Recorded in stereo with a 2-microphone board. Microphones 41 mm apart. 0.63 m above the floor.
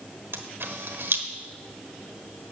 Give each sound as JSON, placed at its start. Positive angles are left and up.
{"t": 0.3, "sound": "a camera shutter", "side_deg": -85, "distance_m": 1.2}